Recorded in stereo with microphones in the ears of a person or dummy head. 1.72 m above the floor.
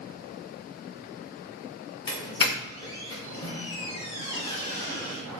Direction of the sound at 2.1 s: 30° left (ahead or behind).